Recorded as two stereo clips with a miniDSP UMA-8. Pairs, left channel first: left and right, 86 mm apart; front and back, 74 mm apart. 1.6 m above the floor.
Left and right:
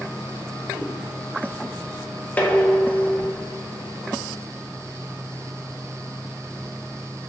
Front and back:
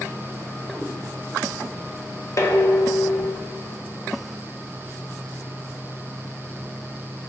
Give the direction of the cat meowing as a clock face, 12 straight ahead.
2 o'clock.